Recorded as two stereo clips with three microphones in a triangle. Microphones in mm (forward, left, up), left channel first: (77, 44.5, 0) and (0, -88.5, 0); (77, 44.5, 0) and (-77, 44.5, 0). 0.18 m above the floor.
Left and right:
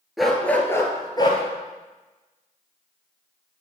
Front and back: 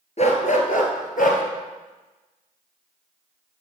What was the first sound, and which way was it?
A dog barking, 30° right.